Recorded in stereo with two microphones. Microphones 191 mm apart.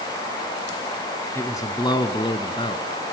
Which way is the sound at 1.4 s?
15° left (ahead or behind).